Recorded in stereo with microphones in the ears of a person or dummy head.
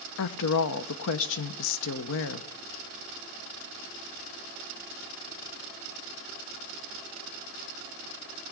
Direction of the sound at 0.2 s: 65° left (ahead or behind).